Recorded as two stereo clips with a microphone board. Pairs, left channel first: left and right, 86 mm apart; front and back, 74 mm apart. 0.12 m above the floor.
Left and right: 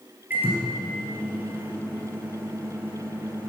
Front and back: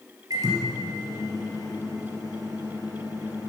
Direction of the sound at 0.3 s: 155° right.